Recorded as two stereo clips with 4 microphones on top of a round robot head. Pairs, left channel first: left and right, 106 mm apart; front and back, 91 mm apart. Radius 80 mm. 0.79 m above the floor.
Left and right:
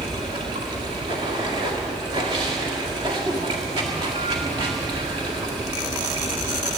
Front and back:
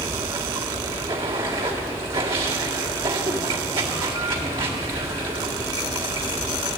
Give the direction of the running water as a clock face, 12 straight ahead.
5 o'clock.